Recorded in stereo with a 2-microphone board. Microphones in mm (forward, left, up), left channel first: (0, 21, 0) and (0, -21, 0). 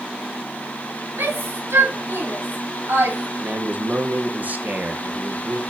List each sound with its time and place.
1.2 s a shout: 75° right (ahead or behind), 4 m; by 3.3 s 60° right (ahead or behind), 3 m
3.4 s a man speaking: 40° right (ahead or behind), 1.3 m